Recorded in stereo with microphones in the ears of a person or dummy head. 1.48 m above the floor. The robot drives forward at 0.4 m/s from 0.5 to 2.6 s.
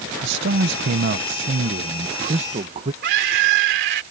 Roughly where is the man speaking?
Right.